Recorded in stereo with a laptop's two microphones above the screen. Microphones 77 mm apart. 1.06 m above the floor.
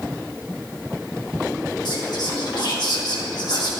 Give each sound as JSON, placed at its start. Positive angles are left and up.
{"t": 1.9, "sound": "whispering", "side_deg": 65, "distance_m": 1.6}